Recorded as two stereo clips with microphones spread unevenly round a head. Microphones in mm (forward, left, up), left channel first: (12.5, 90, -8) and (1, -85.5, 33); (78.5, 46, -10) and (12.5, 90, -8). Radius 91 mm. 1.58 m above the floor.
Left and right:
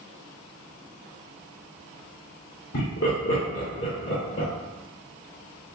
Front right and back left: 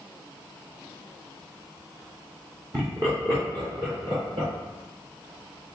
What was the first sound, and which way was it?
Laughter, 85° left.